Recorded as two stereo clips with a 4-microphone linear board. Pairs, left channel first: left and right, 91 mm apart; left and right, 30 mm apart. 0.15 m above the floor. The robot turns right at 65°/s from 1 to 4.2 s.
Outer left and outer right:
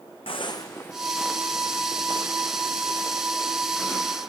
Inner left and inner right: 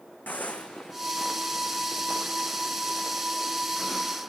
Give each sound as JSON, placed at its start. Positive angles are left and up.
{"t": 0.3, "sound": "footsteps", "side_deg": 85, "distance_m": 0.7}